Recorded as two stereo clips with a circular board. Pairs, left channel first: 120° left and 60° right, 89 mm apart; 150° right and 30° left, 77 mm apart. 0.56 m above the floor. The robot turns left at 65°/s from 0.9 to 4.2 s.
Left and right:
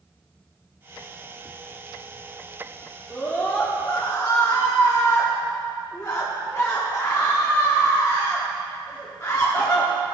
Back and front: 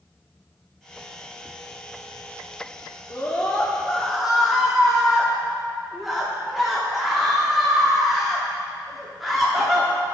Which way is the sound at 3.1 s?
175° right.